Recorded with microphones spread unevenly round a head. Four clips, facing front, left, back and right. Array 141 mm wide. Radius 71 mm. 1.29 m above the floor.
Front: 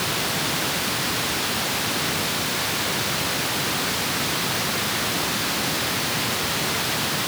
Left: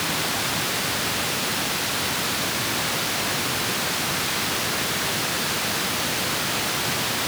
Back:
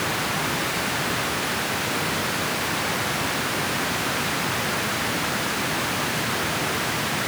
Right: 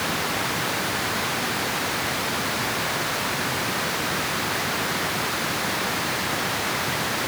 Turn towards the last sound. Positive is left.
No sound to turn to.